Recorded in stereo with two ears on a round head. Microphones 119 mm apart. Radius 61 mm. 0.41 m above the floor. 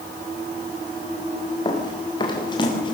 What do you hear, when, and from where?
1.6 s running footsteps: 35° left (ahead or behind), 8.5 m; by 2.9 s 40° left (ahead or behind), 7.5 m